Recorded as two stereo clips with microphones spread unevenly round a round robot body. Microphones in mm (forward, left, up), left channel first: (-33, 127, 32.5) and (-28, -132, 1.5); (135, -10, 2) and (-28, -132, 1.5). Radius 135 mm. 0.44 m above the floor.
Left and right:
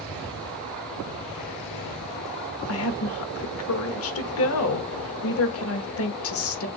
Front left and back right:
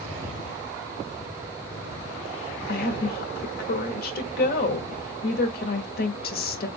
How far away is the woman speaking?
About 1.2 m.